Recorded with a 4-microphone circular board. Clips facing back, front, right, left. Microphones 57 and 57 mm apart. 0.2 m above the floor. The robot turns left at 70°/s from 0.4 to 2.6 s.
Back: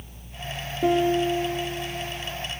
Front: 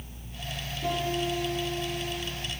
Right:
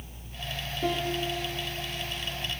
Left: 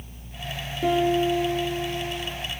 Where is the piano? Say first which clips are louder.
Back 9 dB, left 9 dB; 165° left, 1.8 m; by 2.3 s 60° left, 1.8 m.